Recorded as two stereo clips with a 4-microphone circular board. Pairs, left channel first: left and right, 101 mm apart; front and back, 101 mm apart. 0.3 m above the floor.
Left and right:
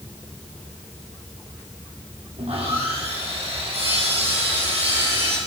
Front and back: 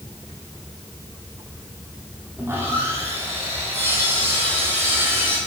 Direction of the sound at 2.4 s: 110° right.